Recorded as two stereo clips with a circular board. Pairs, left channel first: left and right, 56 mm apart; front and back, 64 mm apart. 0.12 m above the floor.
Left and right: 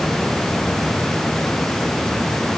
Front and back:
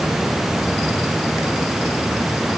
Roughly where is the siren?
No siren in this recording.